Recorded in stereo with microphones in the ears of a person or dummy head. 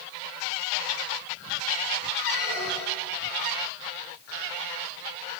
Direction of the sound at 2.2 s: 35° right (ahead or behind).